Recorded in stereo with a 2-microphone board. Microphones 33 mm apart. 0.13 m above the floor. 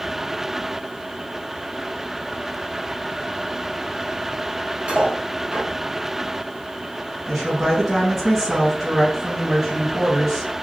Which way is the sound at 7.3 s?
10° right (ahead or behind).